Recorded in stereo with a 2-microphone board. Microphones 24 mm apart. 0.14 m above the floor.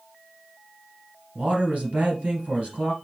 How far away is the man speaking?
About 3 m.